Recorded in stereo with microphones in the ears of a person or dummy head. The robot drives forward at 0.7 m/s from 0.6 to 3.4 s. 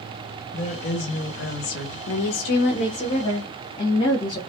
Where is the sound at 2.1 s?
75° left (ahead or behind), 0.6 m; by 4.4 s 35° left (ahead or behind), 1.0 m.